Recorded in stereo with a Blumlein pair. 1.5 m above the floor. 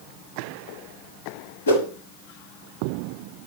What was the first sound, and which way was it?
A whoosh, 65° left.